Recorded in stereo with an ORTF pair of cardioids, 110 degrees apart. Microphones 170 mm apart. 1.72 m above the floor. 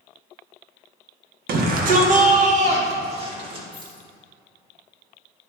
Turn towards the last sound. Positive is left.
turn(degrees=-30)